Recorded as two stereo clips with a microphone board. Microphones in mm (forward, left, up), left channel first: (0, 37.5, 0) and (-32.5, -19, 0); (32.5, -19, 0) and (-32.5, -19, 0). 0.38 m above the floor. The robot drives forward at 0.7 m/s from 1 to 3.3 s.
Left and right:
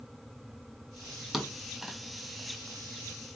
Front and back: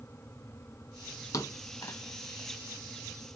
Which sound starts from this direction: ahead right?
A thud, at 1.3 s.